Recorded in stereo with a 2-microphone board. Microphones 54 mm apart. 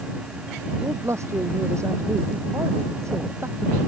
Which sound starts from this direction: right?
A man speaking, at 0.8 s.